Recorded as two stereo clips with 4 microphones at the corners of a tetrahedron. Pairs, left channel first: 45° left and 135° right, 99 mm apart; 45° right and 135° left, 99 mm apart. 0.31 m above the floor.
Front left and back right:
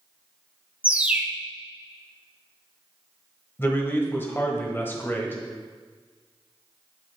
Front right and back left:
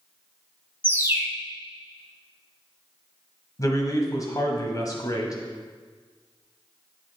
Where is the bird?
165° left, 0.8 m.